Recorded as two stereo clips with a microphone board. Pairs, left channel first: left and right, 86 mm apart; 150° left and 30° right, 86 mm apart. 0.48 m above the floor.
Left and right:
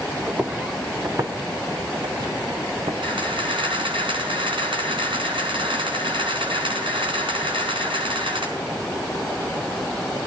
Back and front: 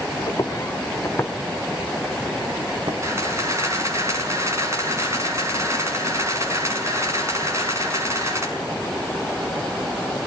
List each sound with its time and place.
0.3 s footsteps: 160° right, 3.5 m; by 2.9 s 65° right, 1.5 m
3.0 s a camera shutter: 85° right, 5 m